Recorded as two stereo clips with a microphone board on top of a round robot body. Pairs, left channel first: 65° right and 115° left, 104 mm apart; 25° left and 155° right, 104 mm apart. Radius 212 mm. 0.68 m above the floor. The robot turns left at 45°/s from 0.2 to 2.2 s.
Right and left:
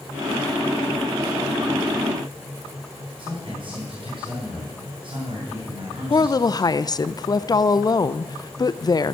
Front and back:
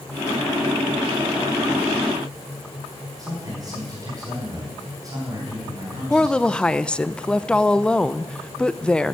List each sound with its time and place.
3.2 s a man speaking: 145° left, 4 m
6.1 s a woman speaking: 55° right, 0.6 m